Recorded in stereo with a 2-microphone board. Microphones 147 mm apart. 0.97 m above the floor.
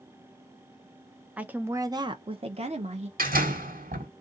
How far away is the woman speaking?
About 0.8 m.